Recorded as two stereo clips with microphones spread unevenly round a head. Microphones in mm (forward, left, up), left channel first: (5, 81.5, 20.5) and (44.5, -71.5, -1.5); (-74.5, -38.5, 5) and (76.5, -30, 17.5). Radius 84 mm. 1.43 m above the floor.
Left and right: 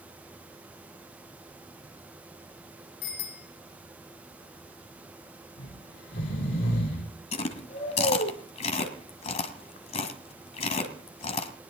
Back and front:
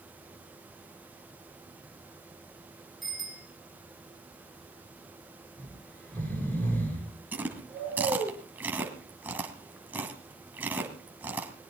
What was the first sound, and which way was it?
A bicycle bell, 90° left.